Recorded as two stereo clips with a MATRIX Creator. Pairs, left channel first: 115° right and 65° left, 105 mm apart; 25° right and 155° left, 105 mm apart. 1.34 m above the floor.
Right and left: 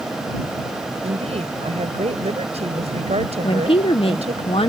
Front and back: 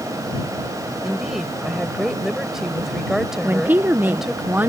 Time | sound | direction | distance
1.0 | a woman speaking | 70° left | ?
3.4 | a woman speaking | 130° right | ?